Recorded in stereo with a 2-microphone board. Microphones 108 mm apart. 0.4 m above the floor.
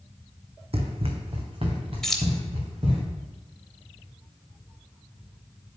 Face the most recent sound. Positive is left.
turn(degrees=5)  # may be behind; listen again after turning